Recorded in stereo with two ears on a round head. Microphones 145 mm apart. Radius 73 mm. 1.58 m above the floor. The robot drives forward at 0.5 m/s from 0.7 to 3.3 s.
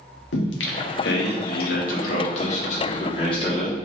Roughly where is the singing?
Left.